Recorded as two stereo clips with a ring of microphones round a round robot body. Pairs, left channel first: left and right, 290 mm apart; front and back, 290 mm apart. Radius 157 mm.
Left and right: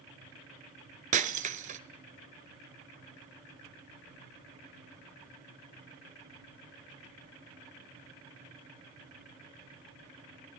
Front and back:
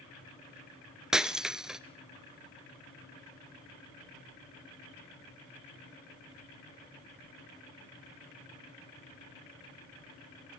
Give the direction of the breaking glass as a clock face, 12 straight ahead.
3 o'clock.